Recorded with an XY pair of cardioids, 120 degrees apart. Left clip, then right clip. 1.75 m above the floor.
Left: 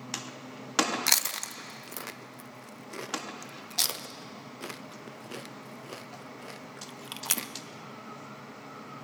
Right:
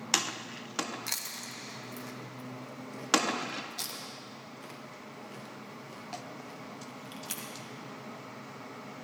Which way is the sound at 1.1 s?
60° left.